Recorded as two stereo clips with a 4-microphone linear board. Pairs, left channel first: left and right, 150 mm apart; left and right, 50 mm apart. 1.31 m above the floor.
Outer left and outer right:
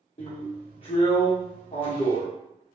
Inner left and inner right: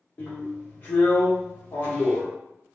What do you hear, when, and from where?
0.2 s a drill: 35° left (ahead or behind), 0.9 m